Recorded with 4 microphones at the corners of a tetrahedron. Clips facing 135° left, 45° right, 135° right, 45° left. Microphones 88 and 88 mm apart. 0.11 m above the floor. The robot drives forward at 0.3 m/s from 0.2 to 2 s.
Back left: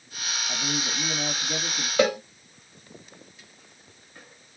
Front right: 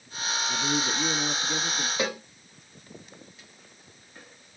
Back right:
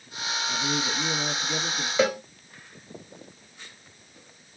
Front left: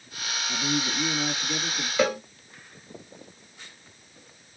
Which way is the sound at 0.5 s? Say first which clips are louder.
Front right 3 dB, front left 2 dB; 135° left.